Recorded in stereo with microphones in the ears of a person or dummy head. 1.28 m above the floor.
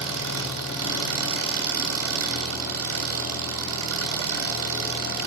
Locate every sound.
0.0 s an engine running: 70° right (ahead or behind), 2.5 m